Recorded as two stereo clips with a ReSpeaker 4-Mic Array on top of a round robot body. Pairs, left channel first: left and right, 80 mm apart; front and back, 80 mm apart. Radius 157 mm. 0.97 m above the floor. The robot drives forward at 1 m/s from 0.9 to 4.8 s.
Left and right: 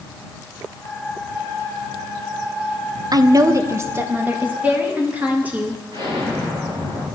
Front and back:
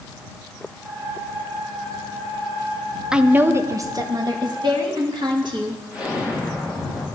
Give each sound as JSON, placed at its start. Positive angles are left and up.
{"t": 3.1, "sound": "a woman speaking", "azimuth_deg": -100, "distance_m": 0.9}
{"t": 5.9, "sound": "an explosion", "azimuth_deg": -100, "distance_m": 8.0}